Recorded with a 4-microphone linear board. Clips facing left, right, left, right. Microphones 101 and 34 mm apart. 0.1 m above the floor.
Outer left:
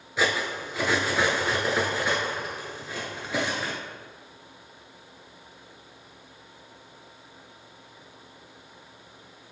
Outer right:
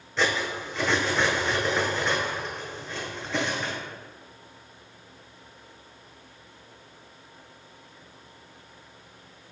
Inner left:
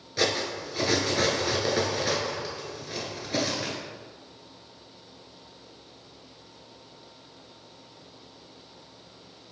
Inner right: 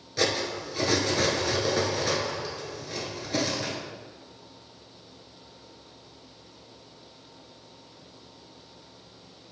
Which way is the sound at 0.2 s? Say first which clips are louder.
Even, even; 10° left (ahead or behind).